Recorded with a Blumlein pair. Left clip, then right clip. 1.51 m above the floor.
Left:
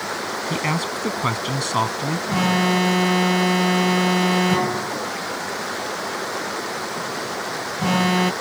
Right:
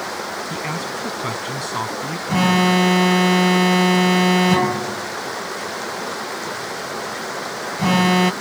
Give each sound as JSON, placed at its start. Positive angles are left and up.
{"t": 0.5, "sound": "a man speaking", "azimuth_deg": 15}
{"t": 2.3, "sound": "an alarm", "azimuth_deg": -10}